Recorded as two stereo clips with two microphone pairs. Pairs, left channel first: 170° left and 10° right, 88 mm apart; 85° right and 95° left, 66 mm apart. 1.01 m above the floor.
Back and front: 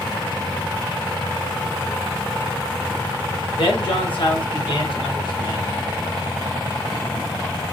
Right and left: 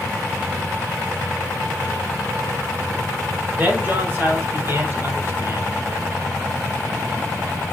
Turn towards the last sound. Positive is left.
turn(degrees=140)